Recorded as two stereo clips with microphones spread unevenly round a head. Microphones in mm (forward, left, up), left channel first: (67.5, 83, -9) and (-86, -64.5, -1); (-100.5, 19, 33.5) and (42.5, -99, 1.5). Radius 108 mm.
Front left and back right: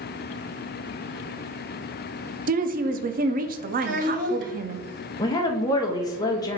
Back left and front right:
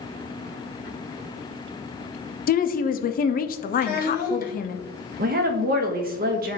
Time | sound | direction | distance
2.5 | a woman speaking | straight behind | 0.5 m
3.8 | a child speaking | 175° right | 2 m
5.2 | a woman speaking | 25° right | 0.8 m